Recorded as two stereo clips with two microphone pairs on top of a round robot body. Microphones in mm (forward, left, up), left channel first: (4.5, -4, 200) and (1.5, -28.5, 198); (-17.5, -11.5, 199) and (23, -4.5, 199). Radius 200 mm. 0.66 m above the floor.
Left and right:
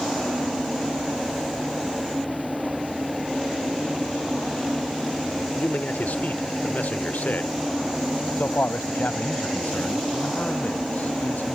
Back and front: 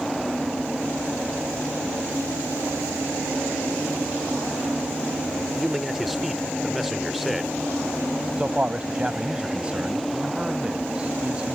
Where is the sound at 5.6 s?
95° left.